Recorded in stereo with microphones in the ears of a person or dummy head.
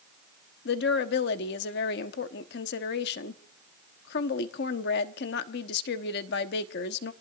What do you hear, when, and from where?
0.7 s a woman speaking: 65° left (ahead or behind), 1.1 m